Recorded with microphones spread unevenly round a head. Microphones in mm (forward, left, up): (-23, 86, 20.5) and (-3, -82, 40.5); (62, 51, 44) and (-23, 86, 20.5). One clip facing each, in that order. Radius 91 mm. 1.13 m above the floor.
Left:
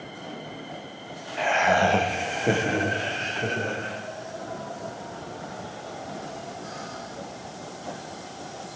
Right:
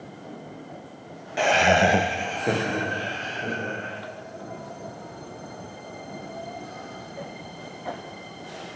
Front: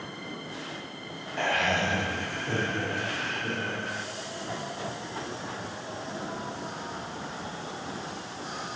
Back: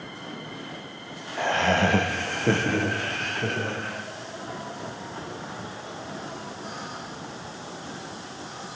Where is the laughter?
120° right, 1.0 m; by 4.0 s 150° left, 3.5 m.